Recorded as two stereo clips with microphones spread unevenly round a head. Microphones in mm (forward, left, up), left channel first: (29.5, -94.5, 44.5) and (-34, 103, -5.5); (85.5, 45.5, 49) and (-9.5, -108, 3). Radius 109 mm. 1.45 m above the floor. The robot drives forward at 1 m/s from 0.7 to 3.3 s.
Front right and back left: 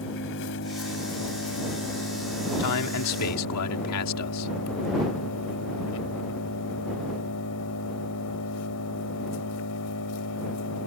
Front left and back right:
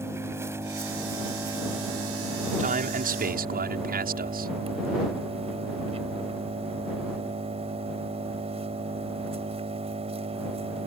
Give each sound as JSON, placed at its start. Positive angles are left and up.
{"t": 0.0, "sound": "an engine running", "azimuth_deg": -45}
{"t": 2.6, "sound": "a man speaking", "azimuth_deg": -75}